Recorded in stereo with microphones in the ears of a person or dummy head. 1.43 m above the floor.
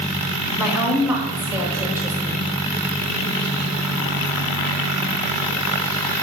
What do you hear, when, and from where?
0.6 s a woman speaking: 5° right (ahead or behind), 2.5 m; by 2.6 s 10° right (ahead or behind), 1.7 m